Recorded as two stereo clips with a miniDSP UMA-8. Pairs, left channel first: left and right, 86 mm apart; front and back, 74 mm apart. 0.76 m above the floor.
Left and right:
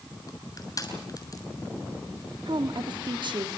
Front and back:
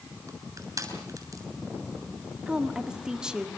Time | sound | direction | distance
0.3 | crushing | 135° left | 7 m
2.5 | a woman speaking | 100° right | 1.9 m